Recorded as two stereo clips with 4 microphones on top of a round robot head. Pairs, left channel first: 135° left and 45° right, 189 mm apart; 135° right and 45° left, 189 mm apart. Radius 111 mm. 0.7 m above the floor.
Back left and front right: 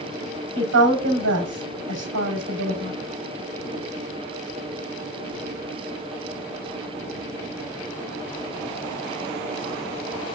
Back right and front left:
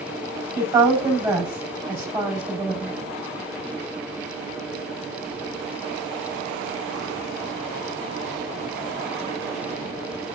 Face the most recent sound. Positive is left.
turn(degrees=-35)